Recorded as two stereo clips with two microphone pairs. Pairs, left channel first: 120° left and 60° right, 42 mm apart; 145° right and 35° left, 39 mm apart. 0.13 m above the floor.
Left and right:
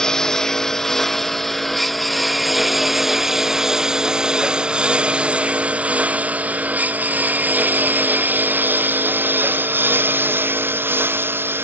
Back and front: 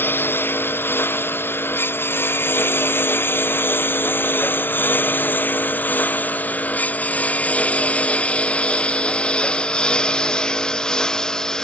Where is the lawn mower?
165° right; by 11.6 s 75° right.